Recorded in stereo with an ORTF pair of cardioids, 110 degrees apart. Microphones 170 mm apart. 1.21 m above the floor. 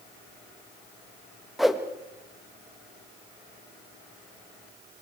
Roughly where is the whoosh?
Ahead.